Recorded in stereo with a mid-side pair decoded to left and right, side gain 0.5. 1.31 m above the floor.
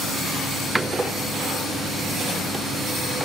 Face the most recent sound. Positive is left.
turn(degrees=-15)